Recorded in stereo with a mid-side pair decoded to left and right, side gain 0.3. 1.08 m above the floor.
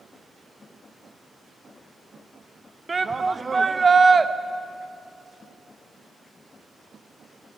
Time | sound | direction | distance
2.9 | a shout | 35° right | 0.7 m